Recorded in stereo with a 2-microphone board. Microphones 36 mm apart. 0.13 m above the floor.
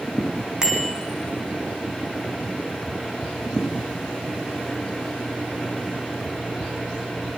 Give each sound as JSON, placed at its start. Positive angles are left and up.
{"t": 0.6, "sound": "a bicycle bell", "side_deg": -25, "distance_m": 6.5}